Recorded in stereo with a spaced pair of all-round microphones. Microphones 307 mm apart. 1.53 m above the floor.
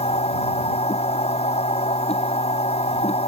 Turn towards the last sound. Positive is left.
turn(degrees=20)  # may be behind; listen again after turning